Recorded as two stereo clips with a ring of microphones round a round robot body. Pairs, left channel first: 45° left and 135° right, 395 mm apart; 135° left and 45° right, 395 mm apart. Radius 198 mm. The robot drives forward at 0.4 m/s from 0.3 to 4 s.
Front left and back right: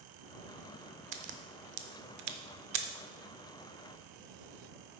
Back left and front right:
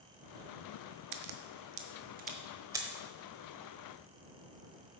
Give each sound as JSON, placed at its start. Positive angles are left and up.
{"t": 1.1, "sound": "a crack", "azimuth_deg": -80, "distance_m": 0.8}